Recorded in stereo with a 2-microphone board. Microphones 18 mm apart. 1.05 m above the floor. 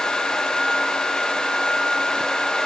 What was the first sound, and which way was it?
Only background noise.